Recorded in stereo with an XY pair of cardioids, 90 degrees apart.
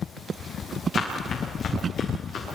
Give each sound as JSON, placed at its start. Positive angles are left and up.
{"t": 0.9, "sound": "running footsteps", "azimuth_deg": 60, "distance_m": 7.5}